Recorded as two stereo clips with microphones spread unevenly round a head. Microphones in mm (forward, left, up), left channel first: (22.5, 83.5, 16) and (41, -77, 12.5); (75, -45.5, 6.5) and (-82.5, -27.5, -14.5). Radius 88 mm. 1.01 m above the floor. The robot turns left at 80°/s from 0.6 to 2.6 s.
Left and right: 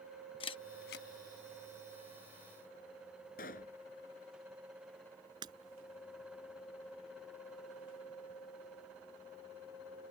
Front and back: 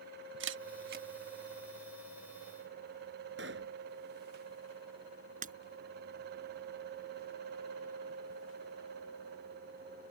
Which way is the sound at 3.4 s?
145° left.